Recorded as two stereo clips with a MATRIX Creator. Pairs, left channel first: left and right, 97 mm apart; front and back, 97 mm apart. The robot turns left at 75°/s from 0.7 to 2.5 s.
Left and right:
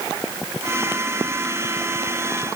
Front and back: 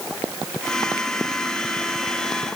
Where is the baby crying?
No baby crying in this recording.